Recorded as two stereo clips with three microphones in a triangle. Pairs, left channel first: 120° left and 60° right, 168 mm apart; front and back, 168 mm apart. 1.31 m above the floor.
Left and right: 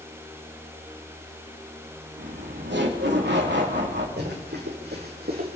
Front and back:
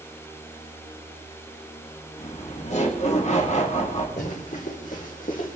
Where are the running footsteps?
45° right, 4.5 m; by 5.6 s 40° right, 4 m.